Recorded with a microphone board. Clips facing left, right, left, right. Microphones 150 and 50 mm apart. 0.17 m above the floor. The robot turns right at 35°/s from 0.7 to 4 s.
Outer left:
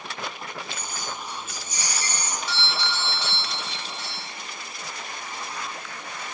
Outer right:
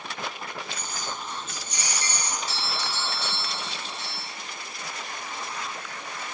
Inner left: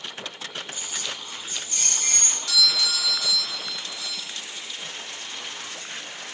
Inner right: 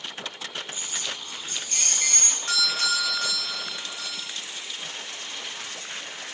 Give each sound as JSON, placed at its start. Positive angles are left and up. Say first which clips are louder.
{"t": 0.7, "sound": "keys jangling", "louder": "even, even", "azimuth_deg": -145, "distance_m": 2.5}
{"t": 2.5, "sound": "a doorbell", "louder": "outer left 2 dB, inner left 1 dB", "azimuth_deg": -130, "distance_m": 3.0}